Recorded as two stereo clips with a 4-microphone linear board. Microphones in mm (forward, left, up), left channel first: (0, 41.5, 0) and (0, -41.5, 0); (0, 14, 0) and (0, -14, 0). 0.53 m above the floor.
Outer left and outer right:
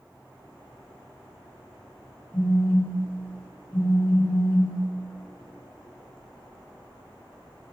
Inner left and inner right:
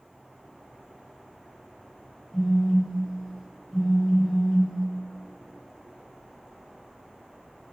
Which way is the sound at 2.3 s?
25° left (ahead or behind).